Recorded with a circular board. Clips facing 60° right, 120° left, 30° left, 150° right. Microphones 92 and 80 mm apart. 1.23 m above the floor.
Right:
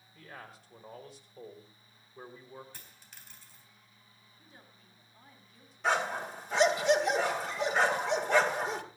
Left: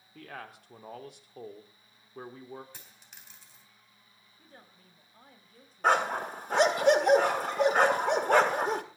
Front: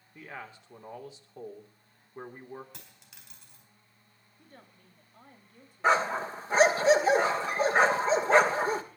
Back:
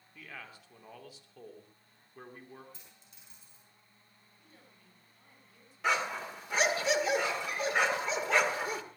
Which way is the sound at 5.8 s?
85° left.